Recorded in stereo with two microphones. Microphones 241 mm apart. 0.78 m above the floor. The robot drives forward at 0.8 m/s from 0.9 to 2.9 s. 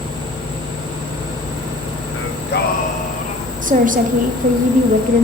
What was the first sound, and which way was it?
Singing, 60° left (ahead or behind).